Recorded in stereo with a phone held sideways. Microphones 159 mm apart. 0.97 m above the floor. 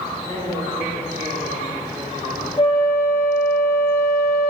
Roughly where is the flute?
Left.